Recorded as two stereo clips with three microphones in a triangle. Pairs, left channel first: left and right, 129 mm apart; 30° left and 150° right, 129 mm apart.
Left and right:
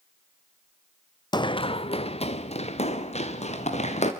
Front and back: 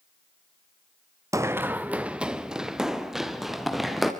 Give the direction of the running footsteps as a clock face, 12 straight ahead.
7 o'clock.